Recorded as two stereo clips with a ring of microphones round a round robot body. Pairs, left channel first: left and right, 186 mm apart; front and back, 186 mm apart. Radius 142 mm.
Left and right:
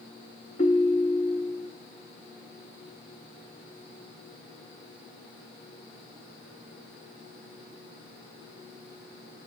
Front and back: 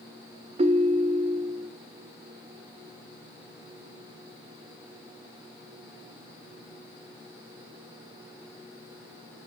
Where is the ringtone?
140° left, 0.5 m.